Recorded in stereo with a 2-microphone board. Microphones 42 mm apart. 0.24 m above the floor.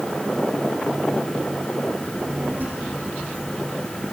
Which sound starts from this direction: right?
A child speaking, at 2.0 s.